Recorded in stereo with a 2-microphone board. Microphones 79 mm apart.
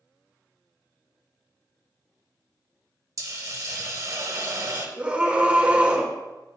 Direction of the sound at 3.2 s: 50° right (ahead or behind).